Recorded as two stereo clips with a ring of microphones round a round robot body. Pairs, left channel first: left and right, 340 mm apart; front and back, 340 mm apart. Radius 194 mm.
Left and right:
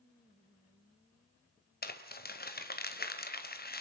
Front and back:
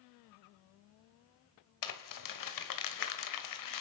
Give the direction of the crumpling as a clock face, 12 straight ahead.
11 o'clock.